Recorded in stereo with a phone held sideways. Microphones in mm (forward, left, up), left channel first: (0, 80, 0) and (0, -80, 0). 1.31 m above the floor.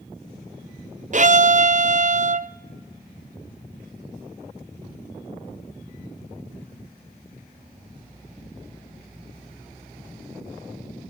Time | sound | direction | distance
1.1 | a violin | 50° right (ahead or behind) | 0.6 m